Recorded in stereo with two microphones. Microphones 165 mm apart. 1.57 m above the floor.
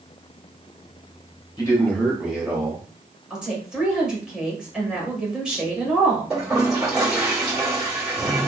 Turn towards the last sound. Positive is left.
turn(degrees=-5)  # may be behind; listen again after turning